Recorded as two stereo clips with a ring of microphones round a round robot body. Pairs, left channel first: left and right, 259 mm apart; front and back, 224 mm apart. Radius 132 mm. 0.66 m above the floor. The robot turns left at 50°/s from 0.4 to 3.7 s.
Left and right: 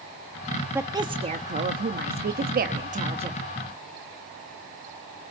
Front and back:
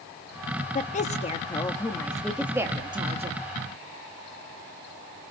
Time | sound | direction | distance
0.8 | a woman speaking | 15° right | 0.9 m